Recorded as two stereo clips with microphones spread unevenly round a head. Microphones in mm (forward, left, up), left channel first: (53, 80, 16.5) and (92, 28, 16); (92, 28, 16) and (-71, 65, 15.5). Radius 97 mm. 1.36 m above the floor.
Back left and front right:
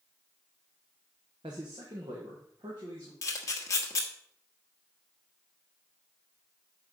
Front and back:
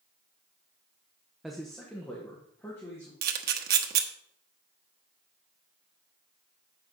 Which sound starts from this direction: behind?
A camera shutter, at 3.2 s.